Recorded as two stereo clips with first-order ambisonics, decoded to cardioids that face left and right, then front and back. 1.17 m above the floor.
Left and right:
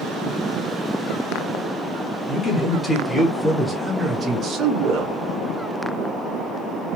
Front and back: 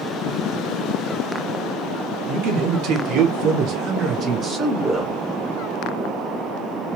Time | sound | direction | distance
2.3 | a man speaking | 155° left | 1.3 m